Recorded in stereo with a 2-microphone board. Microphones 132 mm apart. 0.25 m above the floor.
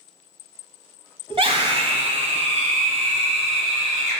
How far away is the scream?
About 1.3 m.